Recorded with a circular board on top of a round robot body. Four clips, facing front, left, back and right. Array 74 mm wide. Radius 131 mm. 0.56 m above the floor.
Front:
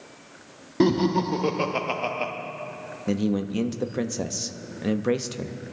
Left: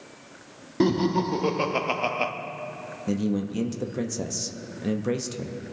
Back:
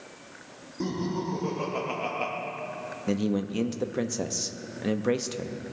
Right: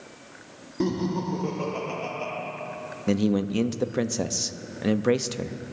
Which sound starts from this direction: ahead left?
Laughter, at 0.8 s.